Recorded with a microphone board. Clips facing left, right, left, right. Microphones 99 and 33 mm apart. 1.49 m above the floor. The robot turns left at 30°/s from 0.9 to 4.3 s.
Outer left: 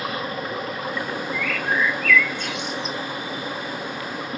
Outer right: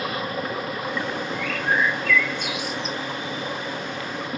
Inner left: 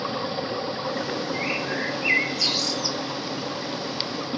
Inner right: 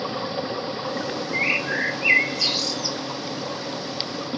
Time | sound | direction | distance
1.3 | a bird | 135° right | 1.1 m